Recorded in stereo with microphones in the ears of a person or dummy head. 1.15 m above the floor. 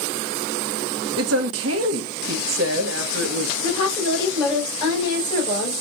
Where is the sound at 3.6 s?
30° left (ahead or behind), 3.5 m.